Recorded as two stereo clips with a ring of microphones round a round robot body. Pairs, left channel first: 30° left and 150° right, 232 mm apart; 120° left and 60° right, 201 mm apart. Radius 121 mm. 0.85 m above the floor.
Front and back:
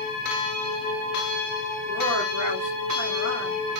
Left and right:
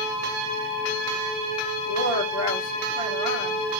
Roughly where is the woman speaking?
Behind.